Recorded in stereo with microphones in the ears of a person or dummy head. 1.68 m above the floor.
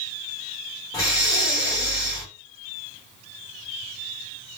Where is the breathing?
20° left (ahead or behind), 1.3 m.